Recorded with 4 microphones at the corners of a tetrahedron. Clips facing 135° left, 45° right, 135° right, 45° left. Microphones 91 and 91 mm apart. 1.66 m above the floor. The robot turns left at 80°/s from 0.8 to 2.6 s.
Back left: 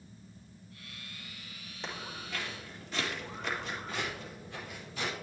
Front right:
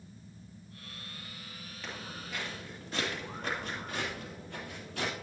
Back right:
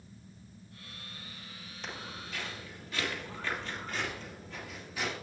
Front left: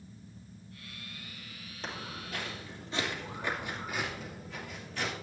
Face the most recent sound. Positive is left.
turn(degrees=-55)